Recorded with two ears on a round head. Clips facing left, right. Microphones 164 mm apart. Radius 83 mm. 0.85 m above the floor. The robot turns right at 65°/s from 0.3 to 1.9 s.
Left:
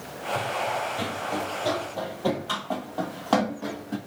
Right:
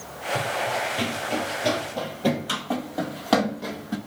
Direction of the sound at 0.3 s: 25° right (ahead or behind).